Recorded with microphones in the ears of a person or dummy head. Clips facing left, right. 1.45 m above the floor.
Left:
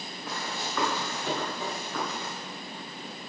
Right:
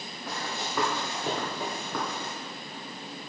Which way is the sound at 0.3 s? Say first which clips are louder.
Right 1 dB; 10° right (ahead or behind).